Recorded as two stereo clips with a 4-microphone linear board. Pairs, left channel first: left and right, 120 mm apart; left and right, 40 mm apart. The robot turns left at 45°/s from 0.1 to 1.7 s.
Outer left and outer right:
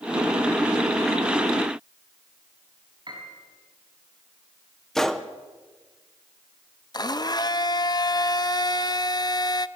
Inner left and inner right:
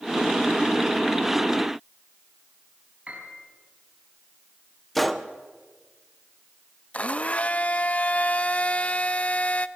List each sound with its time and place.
3.1 s a piano: 40° right (ahead or behind), 5.5 m
5.0 s a gunshot: 5° left (ahead or behind), 0.9 m
6.9 s a blender: 35° left (ahead or behind), 0.5 m